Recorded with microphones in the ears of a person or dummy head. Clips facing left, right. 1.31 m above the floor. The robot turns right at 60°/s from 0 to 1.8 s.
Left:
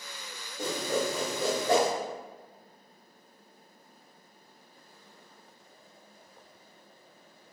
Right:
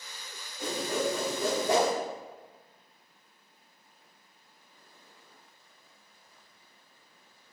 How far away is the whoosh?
About 1.3 m.